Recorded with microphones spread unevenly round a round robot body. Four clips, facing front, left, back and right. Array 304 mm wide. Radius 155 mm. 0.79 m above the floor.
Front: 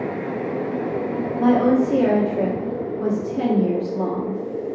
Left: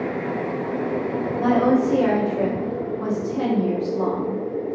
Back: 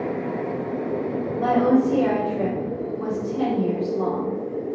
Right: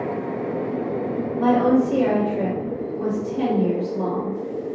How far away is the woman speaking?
About 1.7 m.